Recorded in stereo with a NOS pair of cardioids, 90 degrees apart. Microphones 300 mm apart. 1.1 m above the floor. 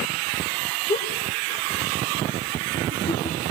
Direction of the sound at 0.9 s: 25° left.